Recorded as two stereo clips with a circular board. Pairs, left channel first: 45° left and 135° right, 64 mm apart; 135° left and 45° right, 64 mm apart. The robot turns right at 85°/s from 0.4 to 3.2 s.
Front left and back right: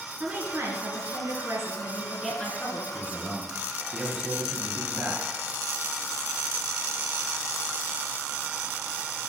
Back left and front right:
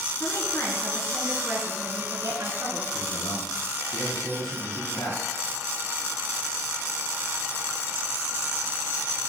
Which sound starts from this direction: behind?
A woman speaking, at 0.2 s.